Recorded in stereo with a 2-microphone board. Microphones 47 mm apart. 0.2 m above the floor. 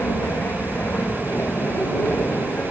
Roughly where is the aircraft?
Left.